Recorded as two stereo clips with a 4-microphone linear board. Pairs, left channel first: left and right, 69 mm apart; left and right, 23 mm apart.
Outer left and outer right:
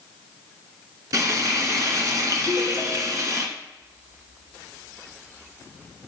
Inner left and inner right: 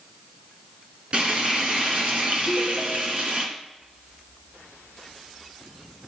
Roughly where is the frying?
Right.